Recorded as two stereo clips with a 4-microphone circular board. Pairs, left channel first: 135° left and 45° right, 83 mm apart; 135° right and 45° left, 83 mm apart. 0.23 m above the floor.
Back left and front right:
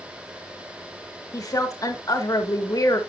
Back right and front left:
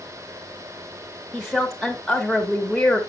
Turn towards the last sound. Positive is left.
turn(degrees=135)